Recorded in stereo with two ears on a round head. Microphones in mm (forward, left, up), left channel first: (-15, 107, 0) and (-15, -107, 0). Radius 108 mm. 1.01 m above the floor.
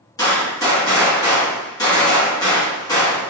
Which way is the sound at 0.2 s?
15° left (ahead or behind).